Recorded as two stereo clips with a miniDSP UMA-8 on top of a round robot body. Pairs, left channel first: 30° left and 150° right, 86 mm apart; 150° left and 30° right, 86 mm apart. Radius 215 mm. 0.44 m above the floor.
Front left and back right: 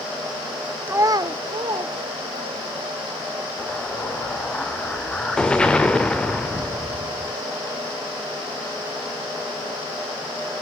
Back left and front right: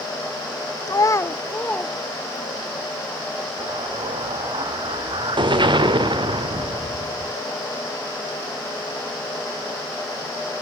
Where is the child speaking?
155° left, 0.6 m; by 2.7 s 130° right, 1.9 m.